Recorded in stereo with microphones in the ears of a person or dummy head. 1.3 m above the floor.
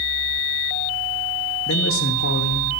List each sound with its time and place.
1.7 s a man speaking: 60° left (ahead or behind), 0.8 m